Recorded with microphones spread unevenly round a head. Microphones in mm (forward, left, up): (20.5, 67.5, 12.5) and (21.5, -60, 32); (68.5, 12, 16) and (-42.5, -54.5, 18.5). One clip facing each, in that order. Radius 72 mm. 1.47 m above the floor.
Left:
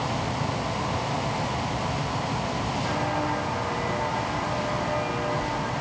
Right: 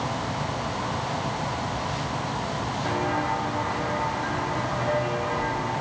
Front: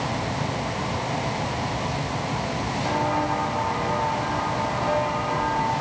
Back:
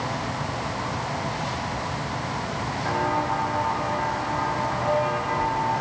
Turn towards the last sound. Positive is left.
turn(degrees=-60)